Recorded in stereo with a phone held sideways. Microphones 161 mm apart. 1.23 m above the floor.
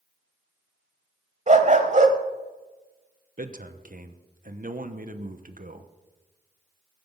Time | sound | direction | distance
1.5 | a dog barking | 45° right (ahead or behind) | 1.3 m
3.4 | a man speaking | 50° right (ahead or behind) | 1.0 m